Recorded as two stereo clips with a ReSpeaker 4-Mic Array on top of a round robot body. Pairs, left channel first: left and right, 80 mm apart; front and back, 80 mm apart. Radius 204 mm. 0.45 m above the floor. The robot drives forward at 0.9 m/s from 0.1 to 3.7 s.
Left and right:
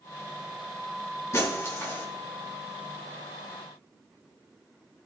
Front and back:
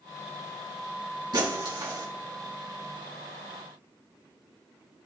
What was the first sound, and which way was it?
Breaking glass, 145° left.